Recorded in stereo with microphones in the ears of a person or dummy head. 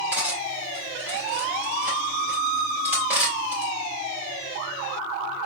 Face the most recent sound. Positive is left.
turn(degrees=-15)  # may be behind; listen again after turning